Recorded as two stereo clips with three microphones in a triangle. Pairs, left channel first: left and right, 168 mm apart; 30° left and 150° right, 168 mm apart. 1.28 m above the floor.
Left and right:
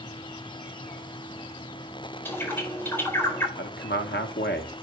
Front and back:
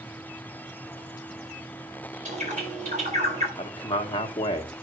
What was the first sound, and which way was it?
A bird, 170° left.